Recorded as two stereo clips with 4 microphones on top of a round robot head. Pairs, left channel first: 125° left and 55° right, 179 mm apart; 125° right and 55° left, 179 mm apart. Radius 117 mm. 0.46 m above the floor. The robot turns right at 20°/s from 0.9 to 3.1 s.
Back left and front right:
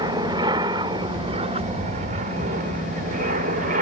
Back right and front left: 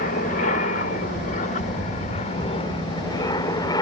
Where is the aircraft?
115° right; by 3.8 s 60° right.